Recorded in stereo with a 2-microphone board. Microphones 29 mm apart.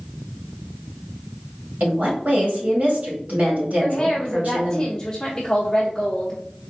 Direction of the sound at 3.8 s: 20° left (ahead or behind).